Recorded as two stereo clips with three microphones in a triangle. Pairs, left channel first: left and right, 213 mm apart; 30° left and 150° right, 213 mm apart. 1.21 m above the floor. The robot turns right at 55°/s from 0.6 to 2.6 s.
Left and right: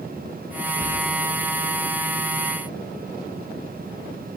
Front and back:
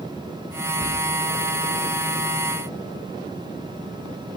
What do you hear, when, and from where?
0.8 s whispering: straight ahead, 5 m; by 0.9 s 10° left, 5 m